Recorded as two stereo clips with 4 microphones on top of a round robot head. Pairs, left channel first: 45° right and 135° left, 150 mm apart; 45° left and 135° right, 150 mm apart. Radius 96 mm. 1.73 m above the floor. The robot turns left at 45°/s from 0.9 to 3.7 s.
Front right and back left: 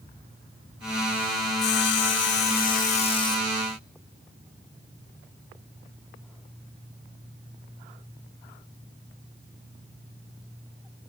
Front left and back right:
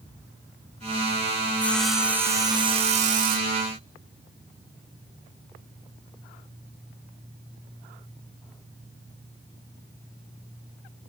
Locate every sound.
1.6 s sawing: 30° right, 2.5 m; by 3.6 s 125° right, 2.5 m